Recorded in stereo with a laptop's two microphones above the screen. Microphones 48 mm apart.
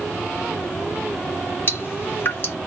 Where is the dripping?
45° left (ahead or behind), 1.9 m.